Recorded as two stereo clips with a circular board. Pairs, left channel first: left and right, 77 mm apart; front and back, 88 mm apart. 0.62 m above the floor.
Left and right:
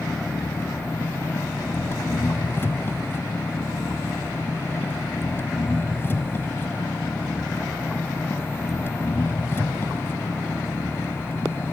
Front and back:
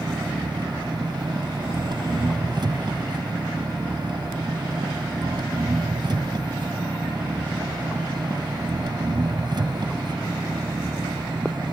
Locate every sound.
0.0 s an engine running: 150° left